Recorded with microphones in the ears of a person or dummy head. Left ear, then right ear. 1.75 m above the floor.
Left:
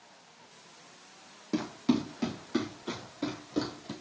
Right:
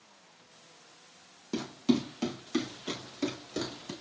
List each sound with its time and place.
1.5 s running footsteps: 20° left (ahead or behind), 4 m; by 3.9 s 15° right (ahead or behind), 5 m